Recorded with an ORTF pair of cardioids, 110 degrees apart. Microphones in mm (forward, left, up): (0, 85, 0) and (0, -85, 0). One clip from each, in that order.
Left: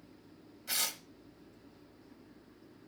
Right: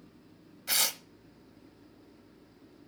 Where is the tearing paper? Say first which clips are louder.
Right 6 dB; 30° right, 1.3 m.